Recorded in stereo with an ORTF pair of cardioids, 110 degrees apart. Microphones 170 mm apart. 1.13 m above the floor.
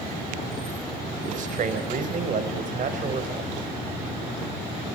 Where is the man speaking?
50° right, 4.5 m.